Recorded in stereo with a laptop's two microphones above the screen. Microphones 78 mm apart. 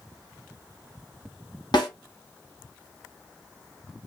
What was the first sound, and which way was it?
A snare drum, 75° left (ahead or behind).